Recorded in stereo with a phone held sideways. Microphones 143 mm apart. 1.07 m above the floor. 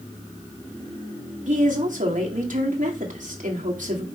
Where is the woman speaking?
65° right (ahead or behind), 2 m.